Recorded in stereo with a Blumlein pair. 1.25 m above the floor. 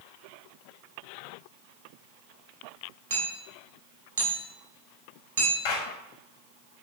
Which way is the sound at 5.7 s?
55° left.